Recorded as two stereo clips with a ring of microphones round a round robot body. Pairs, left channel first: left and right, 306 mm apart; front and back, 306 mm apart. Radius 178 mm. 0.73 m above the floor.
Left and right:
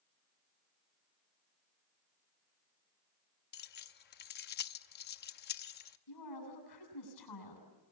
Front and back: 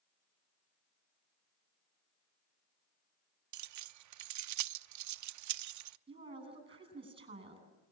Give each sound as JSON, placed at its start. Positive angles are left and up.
{"t": 3.5, "sound": "keys jangling", "azimuth_deg": 150, "distance_m": 0.6}
{"t": 6.1, "sound": "a woman speaking", "azimuth_deg": 105, "distance_m": 8.5}